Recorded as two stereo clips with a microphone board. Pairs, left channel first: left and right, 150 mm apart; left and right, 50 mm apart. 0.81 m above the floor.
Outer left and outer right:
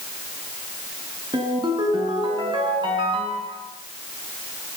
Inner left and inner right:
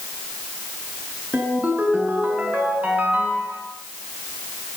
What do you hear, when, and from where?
1.3 s a ringtone: 30° right (ahead or behind), 7 m